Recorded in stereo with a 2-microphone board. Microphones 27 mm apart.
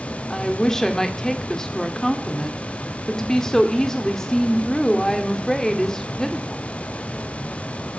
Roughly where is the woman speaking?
Left.